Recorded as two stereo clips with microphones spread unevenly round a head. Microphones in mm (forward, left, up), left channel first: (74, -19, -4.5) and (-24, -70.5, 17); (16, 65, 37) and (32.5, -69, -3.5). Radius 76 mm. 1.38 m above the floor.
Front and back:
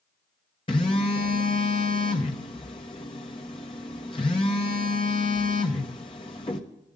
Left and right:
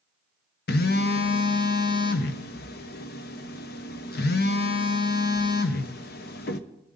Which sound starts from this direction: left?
A phone buzzing, at 0.7 s.